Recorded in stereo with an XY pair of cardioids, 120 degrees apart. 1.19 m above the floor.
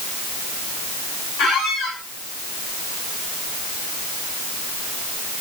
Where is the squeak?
65° left, 6 m.